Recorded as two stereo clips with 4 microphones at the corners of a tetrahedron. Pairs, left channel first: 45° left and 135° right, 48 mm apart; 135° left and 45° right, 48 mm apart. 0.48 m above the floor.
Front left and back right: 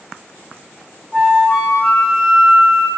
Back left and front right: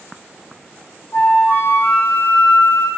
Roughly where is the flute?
Behind left.